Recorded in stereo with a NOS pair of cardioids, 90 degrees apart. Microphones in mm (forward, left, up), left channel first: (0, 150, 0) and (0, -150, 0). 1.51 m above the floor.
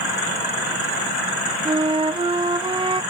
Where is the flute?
15° right, 0.8 m.